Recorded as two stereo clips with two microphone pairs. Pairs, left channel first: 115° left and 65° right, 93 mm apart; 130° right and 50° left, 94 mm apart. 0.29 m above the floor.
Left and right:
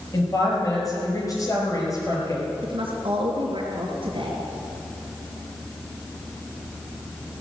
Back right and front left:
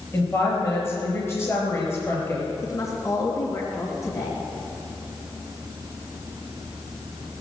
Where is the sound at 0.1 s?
165° left, 5 m.